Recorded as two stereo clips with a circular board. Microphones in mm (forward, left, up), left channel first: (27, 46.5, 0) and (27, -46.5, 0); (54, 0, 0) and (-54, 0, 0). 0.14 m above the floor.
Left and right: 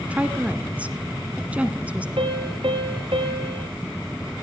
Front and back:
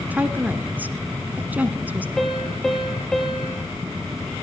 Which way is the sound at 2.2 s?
85° right.